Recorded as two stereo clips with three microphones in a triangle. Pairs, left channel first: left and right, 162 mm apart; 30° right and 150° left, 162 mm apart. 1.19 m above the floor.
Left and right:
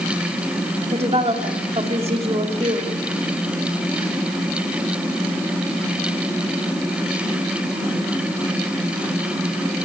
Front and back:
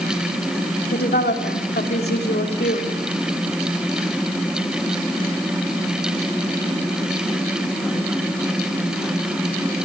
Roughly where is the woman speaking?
Ahead right.